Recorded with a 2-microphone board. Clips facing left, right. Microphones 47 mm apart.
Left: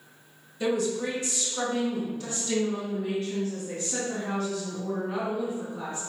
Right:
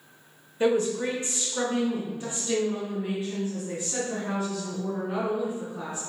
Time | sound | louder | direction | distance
0.6 | a woman speaking | right 3 dB | 35° right (ahead or behind) | 1.0 m